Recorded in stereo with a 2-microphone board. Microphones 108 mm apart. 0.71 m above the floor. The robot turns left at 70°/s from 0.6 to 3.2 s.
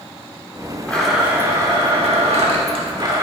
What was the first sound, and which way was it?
A blender, 15° left.